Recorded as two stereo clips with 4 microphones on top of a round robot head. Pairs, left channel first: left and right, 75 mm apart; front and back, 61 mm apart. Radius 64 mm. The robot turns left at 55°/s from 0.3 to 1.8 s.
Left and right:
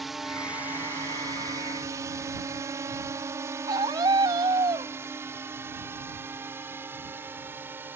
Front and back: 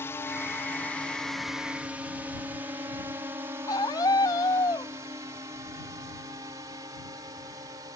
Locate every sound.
0.0 s a drone: 5° right; by 8.0 s 150° right
3.7 s a scream: 45° right